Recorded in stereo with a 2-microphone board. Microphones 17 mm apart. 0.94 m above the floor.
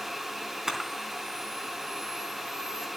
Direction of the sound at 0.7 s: 25° right (ahead or behind).